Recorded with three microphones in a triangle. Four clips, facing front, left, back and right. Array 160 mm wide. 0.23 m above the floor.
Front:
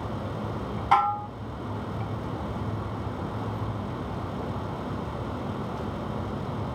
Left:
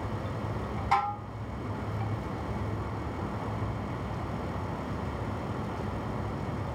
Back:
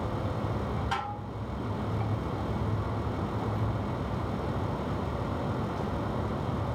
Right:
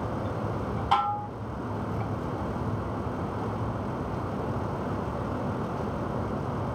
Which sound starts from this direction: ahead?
Dishes clattering, at 0.9 s.